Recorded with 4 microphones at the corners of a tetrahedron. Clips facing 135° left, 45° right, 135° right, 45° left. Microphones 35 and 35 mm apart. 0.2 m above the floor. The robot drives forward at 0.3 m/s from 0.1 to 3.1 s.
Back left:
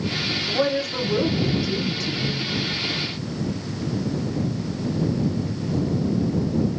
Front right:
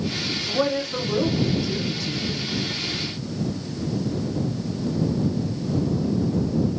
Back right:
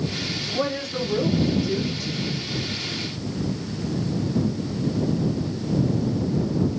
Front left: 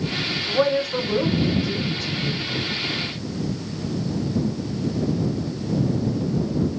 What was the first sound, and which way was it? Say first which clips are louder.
A woman speaking: even, front left 7 dB; 30° left.